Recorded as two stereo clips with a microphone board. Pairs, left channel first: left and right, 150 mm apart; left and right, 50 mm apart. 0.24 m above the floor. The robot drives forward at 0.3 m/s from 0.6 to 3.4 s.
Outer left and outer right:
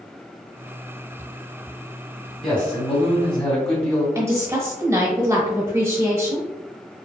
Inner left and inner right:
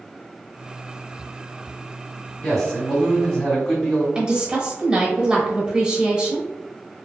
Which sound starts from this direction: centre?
A man speaking, at 2.4 s.